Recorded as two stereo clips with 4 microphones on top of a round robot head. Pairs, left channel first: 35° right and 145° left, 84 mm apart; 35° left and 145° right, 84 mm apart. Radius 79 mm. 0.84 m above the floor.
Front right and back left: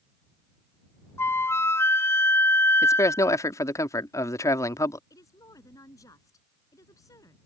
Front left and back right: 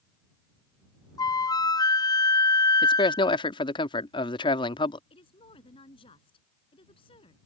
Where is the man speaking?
20° left.